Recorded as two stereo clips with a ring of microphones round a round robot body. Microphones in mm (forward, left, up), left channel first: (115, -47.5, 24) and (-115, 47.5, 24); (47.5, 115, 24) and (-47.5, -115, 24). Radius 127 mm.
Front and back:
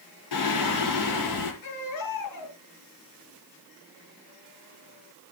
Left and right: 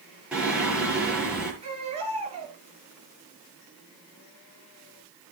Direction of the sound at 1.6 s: 45° right.